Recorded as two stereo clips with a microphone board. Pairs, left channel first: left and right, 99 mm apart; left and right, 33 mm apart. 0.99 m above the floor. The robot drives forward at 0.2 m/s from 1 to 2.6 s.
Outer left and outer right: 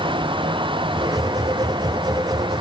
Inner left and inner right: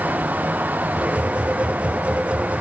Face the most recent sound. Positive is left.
No sound to turn to.